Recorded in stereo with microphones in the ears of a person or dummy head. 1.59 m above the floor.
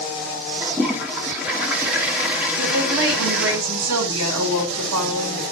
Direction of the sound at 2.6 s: 75° right (ahead or behind).